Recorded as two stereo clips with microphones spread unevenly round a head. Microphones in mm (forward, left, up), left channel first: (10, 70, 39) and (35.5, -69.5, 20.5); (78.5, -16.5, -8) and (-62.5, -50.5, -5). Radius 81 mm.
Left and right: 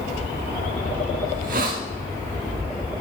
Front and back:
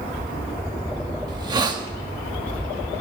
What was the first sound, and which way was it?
A hiss, 115° right.